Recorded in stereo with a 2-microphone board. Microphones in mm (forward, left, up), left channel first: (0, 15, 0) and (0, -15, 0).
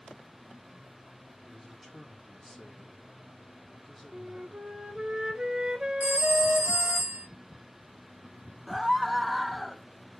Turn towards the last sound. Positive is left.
turn(degrees=-5)  # may be behind; listen again after turning